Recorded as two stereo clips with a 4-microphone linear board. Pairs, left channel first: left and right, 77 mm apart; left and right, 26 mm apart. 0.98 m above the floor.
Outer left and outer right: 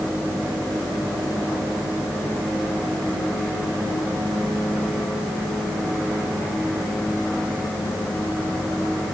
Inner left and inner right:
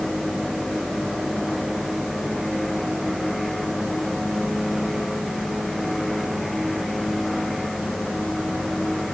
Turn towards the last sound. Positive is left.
No sound to turn to.